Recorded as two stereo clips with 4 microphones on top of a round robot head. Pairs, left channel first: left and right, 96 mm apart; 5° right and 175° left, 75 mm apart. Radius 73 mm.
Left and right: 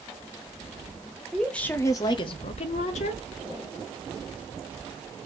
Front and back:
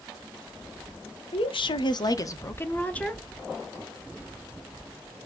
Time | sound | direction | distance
1.3 | a woman speaking | straight ahead | 0.9 m